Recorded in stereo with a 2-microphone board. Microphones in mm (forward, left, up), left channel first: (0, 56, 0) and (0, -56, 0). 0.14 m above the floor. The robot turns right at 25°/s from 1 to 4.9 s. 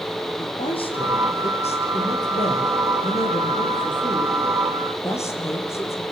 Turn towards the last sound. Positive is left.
turn(degrees=155)